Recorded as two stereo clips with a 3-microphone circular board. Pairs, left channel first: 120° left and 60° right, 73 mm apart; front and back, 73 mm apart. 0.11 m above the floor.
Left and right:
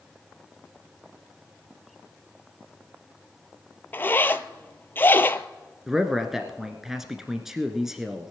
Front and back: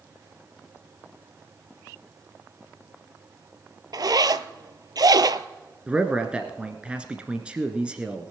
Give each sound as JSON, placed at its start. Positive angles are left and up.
{"t": 3.9, "sound": "a zipper", "azimuth_deg": 180, "distance_m": 0.5}
{"t": 5.9, "sound": "a man speaking", "azimuth_deg": -135, "distance_m": 1.2}